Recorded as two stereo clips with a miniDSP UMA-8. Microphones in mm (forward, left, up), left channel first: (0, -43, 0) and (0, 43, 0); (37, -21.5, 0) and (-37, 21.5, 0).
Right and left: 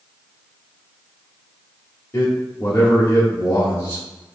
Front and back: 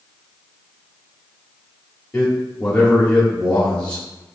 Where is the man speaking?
90° right, 0.9 m.